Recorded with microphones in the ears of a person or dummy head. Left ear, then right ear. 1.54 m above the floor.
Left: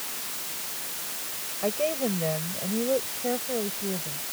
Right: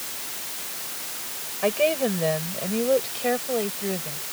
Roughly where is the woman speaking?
Right.